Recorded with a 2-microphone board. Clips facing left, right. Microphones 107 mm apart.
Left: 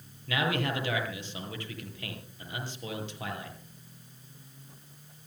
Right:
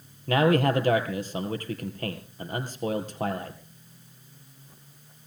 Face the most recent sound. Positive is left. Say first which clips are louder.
# right 9 dB
turn(degrees=-45)  # may be behind; listen again after turning